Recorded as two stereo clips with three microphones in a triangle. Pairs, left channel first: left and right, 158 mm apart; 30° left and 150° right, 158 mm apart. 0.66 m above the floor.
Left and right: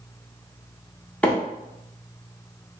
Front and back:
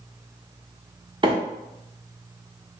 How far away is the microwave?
About 0.7 m.